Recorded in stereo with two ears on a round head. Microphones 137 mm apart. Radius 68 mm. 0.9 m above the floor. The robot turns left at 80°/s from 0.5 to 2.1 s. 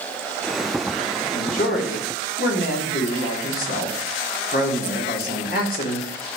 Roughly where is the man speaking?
Behind left.